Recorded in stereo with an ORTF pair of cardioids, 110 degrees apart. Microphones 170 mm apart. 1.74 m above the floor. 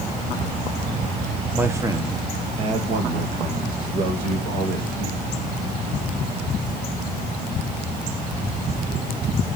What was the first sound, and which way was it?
A man speaking, 10° right.